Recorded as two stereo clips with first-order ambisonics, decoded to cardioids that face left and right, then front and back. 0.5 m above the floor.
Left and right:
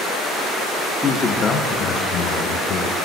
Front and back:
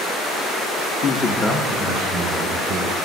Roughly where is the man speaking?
Ahead.